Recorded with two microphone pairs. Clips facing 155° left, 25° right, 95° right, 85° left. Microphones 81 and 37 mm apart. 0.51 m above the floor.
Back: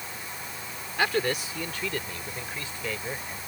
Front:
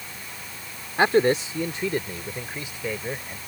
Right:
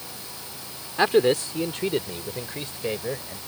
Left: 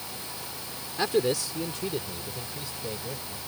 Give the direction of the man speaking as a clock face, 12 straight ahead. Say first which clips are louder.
Front 7 dB, right 6 dB; 2 o'clock.